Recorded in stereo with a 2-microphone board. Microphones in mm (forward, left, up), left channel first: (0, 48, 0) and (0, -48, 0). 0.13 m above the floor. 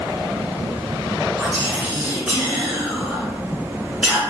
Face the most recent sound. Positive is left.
turn(degrees=-10)  # may be behind; listen again after turning